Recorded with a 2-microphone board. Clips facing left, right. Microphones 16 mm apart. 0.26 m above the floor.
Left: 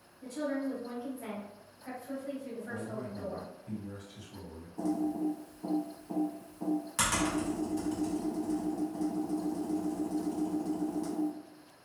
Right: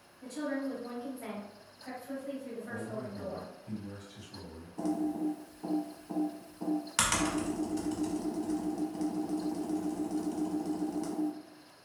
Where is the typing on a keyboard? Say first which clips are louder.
Even; 35° right (ahead or behind), 0.9 m.